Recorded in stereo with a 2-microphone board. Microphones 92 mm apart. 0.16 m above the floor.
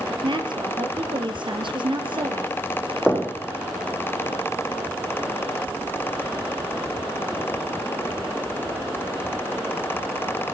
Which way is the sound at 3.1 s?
5° right (ahead or behind).